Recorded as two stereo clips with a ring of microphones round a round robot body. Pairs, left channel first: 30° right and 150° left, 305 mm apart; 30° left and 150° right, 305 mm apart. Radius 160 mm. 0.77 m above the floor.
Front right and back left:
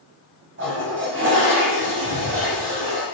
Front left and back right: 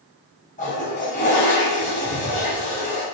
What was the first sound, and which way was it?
A toilet flushing, 95° left.